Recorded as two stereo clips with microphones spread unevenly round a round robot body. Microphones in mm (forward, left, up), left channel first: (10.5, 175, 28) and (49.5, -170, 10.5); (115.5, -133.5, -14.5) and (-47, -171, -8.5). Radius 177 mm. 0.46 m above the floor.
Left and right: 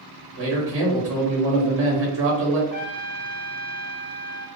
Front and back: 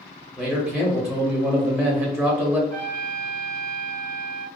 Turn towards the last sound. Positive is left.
turn(degrees=-5)